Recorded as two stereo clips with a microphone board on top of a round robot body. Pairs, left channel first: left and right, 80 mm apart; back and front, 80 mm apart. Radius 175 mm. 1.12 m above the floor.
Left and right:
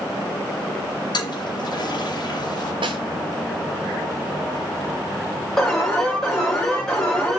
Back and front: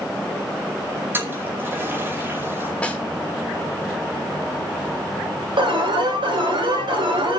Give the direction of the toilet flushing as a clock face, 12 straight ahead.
10 o'clock.